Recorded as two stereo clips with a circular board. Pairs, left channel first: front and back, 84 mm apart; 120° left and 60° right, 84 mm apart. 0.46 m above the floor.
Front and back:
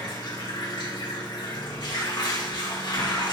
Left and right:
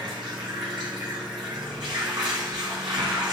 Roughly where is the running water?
Ahead right.